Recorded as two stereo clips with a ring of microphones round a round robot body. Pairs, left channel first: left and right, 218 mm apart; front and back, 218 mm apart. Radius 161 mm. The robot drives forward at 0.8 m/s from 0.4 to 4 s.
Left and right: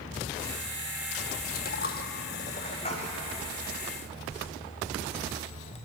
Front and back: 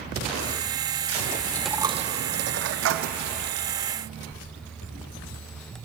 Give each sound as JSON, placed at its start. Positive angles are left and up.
{"t": 1.6, "sound": "a dropped coin", "azimuth_deg": 75, "distance_m": 0.5}